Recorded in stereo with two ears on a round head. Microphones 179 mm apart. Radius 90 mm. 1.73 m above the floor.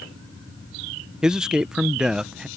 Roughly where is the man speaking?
Centre.